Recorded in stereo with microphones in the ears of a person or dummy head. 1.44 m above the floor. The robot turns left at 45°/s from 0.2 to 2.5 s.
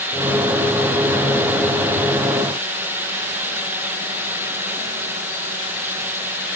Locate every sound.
Only background noise.